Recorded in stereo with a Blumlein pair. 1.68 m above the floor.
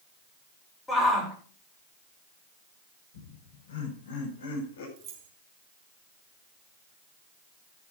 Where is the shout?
10° left, 7 m.